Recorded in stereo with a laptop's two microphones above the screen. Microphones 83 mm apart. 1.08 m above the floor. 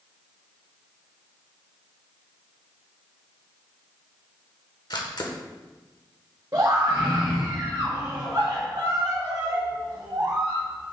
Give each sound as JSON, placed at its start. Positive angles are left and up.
{"t": 4.9, "sound": "a camera shutter", "side_deg": 55, "distance_m": 1.1}
{"t": 6.5, "sound": "a scream", "side_deg": -40, "distance_m": 1.2}